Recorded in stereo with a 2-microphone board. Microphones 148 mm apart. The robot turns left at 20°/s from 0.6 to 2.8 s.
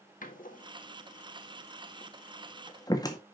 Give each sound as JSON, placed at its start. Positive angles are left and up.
{"t": 0.2, "sound": "a door slam", "side_deg": 65, "distance_m": 1.7}